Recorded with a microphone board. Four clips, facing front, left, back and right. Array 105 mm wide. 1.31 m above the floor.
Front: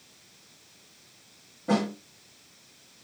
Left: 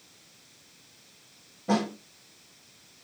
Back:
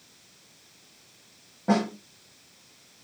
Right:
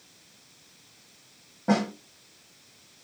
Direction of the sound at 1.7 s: 130° right.